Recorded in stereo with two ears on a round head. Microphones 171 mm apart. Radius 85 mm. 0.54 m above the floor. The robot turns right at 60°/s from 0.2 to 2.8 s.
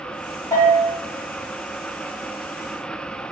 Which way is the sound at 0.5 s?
15° left (ahead or behind).